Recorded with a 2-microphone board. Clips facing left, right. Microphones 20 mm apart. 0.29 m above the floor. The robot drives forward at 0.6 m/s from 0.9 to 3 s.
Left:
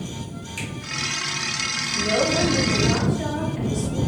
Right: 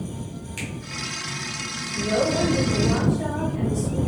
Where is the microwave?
No microwave in this recording.